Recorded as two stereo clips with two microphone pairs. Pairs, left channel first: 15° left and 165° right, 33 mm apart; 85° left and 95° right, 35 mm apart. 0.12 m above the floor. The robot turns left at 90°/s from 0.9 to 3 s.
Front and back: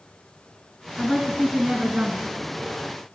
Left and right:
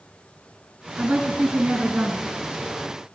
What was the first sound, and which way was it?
A woman speaking, 45° right.